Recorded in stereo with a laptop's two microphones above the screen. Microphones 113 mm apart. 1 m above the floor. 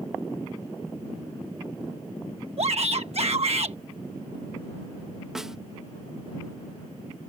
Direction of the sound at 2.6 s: 65° right (ahead or behind).